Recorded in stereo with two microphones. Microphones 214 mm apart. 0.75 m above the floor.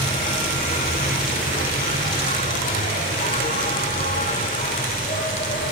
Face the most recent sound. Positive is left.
turn(degrees=40)  # may be behind; listen again after turning